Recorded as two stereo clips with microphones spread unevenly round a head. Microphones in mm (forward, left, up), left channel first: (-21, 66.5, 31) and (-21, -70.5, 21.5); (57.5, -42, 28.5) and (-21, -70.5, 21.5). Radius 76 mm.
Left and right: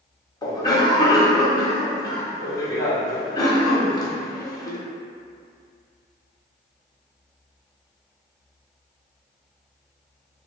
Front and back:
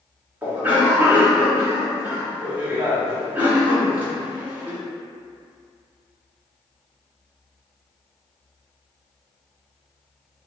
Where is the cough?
140° left, 0.9 m.